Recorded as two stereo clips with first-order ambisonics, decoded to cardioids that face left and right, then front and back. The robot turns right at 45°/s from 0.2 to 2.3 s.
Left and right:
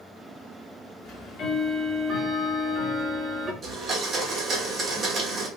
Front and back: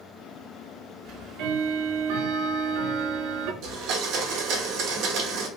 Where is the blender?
160° right, 1.0 m.